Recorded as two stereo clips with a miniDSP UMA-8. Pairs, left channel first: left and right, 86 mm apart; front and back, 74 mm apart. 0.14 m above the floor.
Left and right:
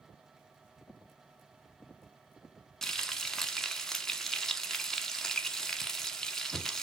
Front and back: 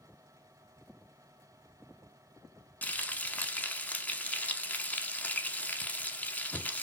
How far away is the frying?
About 0.8 m.